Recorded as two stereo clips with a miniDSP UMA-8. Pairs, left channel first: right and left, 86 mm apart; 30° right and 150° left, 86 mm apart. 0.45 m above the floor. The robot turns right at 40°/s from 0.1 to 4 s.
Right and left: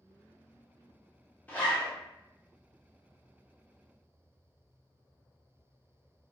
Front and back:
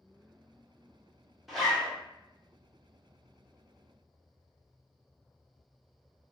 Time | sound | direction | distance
1.5 | a zipper | 125° right | 1.0 m